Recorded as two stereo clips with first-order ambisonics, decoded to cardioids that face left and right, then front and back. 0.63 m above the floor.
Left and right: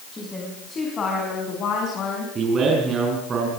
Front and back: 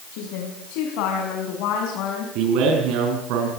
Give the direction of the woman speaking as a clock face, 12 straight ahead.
12 o'clock.